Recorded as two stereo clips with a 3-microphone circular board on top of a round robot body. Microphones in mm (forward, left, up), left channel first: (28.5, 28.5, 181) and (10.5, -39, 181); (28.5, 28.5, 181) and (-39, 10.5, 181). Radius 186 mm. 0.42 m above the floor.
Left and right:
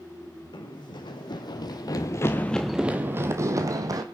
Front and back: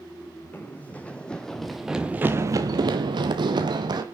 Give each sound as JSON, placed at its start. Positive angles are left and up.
{"t": 0.5, "sound": "running footsteps", "azimuth_deg": 80, "distance_m": 1.9}